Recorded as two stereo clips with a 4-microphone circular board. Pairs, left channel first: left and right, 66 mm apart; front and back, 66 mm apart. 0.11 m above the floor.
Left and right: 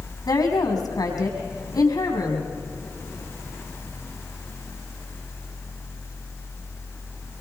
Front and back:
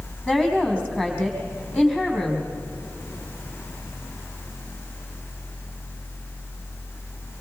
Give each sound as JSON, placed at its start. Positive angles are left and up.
{"t": 0.3, "sound": "a woman speaking", "azimuth_deg": 75, "distance_m": 5.0}